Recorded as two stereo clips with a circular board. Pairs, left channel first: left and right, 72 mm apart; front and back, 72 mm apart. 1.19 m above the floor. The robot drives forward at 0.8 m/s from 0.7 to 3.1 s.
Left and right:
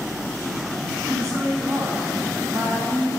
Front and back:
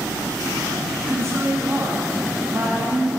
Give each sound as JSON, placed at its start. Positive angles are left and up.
{"t": 1.1, "sound": "a woman speaking", "azimuth_deg": -130, "distance_m": 3.0}